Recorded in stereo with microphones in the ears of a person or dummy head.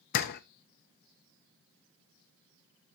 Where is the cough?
I don't hear a cough.